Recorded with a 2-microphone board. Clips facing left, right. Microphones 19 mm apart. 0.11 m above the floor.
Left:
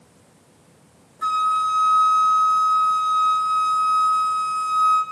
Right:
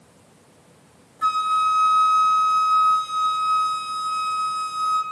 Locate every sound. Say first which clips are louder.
1.2 s a flute: even; 10° right (ahead or behind), 0.7 m